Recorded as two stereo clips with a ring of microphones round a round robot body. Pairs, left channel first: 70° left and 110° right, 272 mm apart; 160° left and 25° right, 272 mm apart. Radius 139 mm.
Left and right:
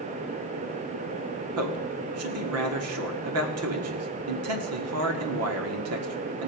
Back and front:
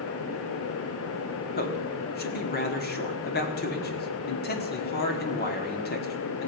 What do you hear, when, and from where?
1.6 s a man speaking: 145° right, 1.7 m